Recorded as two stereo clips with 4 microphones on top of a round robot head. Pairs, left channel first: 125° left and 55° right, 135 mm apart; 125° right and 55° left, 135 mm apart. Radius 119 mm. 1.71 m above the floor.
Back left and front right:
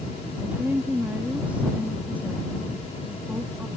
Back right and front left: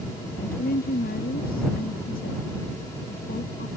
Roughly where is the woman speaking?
Behind right.